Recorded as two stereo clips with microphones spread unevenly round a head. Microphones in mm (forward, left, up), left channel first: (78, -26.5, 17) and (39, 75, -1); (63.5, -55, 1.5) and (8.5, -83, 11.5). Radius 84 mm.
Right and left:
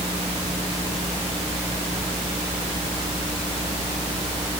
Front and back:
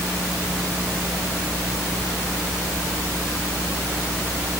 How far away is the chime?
I don't hear a chime.